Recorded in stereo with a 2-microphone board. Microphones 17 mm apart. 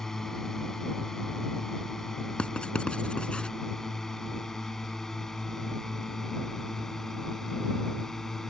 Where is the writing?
70° left (ahead or behind).